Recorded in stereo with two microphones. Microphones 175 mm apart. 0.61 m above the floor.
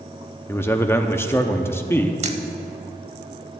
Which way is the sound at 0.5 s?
15° left (ahead or behind).